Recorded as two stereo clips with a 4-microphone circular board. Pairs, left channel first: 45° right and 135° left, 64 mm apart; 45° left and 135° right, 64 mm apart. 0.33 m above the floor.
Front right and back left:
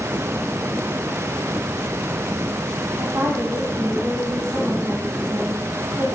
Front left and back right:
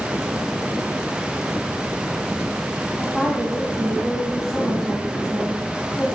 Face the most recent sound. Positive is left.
turn(degrees=135)